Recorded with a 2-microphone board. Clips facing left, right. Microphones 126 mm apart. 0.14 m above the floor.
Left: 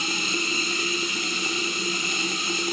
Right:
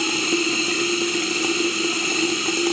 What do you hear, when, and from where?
0.0 s running water: 75° right (ahead or behind), 3 m